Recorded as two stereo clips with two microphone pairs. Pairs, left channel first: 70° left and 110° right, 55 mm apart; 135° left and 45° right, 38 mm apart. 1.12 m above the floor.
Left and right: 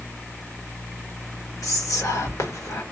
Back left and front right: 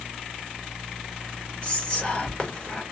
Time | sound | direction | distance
1.6 | whispering | 70° left | 1.3 m